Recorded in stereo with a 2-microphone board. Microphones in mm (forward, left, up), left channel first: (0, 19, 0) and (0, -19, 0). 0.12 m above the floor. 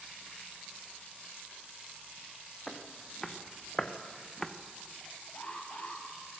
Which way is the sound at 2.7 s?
10° left (ahead or behind).